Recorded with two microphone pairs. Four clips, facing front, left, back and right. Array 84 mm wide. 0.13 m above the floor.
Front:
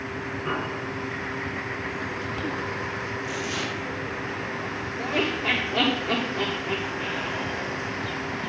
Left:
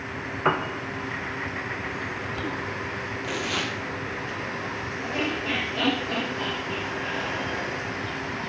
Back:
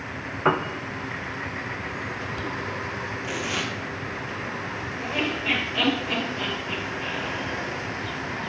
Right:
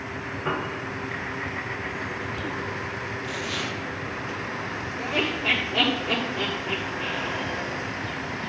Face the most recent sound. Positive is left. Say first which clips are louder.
# right 2 dB, front 2 dB
turn(degrees=-20)